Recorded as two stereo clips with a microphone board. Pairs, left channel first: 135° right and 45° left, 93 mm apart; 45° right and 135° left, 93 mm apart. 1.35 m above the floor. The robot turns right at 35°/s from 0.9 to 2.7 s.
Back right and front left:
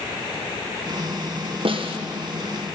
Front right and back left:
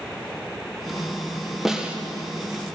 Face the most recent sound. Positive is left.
turn(degrees=85)